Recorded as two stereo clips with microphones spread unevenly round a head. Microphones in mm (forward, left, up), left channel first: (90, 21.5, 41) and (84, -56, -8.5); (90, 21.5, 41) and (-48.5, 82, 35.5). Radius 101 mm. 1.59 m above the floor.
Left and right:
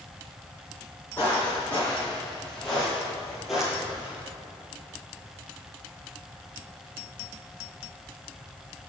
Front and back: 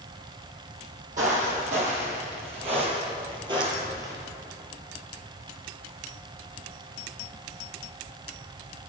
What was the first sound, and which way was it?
Footsteps, 130° left.